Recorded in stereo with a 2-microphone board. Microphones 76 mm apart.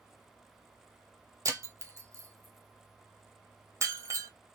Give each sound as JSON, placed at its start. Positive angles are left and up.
{"t": 1.4, "sound": "breaking glass", "side_deg": -45, "distance_m": 0.6}